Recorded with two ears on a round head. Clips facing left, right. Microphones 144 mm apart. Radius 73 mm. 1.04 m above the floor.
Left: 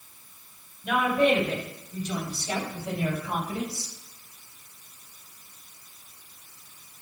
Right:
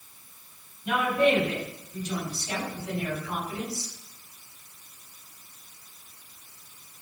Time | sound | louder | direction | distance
0.8 | a woman speaking | left 1 dB | 85° left | 5.5 m